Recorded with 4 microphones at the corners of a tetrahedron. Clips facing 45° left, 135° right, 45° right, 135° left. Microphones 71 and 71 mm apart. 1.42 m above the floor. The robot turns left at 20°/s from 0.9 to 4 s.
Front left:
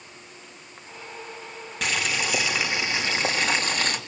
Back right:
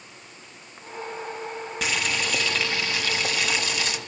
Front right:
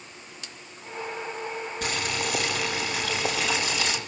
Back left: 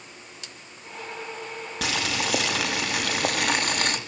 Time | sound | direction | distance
1.8 | boiling | 135° left | 3.5 m